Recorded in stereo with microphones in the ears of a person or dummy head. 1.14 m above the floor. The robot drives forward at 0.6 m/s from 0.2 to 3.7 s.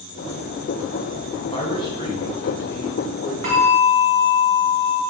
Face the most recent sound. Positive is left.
turn(degrees=-35)  # may be behind; listen again after turning